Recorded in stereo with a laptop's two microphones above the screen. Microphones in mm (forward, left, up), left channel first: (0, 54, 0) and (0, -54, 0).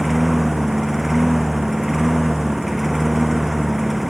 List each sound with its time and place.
0.0 s a lawn mower: centre (ahead or behind)